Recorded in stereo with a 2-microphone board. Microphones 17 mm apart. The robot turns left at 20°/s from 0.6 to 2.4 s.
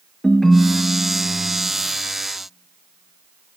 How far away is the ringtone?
About 0.8 m.